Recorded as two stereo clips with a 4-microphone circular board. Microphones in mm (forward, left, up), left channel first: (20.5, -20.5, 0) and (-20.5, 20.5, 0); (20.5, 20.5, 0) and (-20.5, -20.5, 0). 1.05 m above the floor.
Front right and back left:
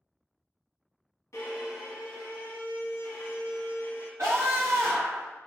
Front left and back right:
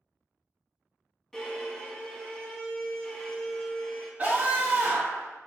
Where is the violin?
35° right, 1.3 m.